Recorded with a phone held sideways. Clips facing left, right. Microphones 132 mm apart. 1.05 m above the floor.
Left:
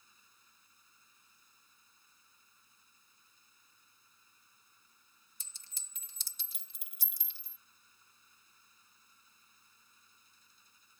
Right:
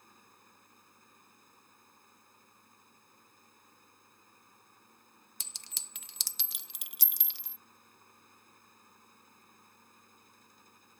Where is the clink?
75° right (ahead or behind).